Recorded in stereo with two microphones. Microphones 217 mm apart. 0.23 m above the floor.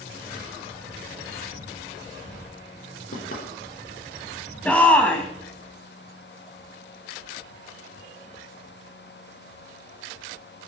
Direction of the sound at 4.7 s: 5° left (ahead or behind).